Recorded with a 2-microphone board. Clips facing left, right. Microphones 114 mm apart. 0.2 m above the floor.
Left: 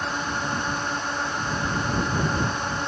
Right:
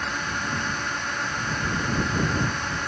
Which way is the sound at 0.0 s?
25° left (ahead or behind).